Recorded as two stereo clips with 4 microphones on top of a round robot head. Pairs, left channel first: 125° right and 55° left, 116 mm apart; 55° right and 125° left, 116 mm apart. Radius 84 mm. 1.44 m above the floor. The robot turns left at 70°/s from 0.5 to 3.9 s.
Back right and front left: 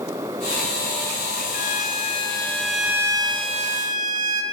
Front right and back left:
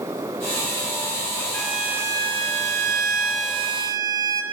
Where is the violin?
130° right, 0.8 m; by 4.4 s 65° left, 0.8 m.